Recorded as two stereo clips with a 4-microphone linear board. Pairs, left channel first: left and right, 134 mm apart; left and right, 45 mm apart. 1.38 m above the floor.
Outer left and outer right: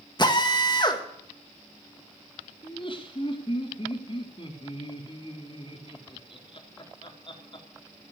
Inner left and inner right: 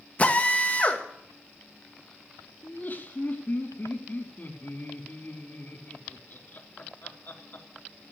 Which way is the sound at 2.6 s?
40° left (ahead or behind).